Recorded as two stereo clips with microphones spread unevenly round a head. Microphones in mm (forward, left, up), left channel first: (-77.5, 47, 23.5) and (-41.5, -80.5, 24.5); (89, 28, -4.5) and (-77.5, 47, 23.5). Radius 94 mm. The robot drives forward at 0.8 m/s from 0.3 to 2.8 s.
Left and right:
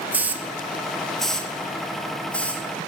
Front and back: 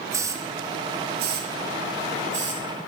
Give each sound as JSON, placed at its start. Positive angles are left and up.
{"t": 0.1, "sound": "a hiss", "azimuth_deg": -140, "distance_m": 0.7}